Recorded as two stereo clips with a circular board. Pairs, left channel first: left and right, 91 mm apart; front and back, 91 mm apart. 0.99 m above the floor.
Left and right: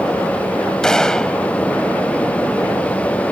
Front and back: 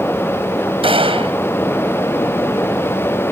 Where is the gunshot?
175° left.